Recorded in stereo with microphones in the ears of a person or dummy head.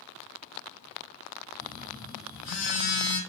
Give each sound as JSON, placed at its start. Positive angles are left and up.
{"t": 1.6, "sound": "a phone buzzing", "side_deg": 75, "distance_m": 2.0}